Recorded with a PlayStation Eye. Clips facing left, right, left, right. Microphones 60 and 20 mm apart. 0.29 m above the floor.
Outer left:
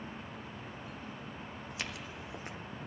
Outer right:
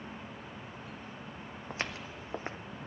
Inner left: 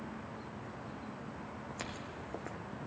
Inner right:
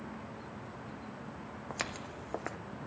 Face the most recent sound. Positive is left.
turn(degrees=-40)  # may be behind; listen again after turning